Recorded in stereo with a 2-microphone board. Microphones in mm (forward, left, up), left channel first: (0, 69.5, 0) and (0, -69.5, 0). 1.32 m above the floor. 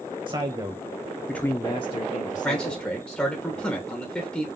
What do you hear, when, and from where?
0.3 s a man speaking: 35° right (ahead or behind), 1.1 m; by 2.8 s 70° left (ahead or behind), 1.2 m
2.4 s a man speaking: 10° left (ahead or behind), 1.1 m